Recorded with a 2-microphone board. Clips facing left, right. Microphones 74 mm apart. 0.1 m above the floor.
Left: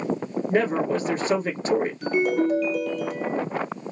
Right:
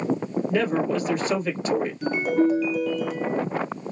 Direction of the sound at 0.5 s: 40° left (ahead or behind).